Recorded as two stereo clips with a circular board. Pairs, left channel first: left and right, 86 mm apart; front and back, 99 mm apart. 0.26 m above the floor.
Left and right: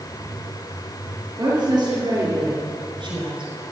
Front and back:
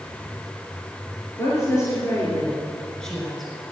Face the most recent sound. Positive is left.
turn(degrees=-95)